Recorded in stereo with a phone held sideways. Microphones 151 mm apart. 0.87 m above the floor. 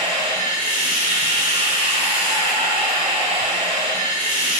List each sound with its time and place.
0.0 s running water: 50° right (ahead or behind), 1.3 m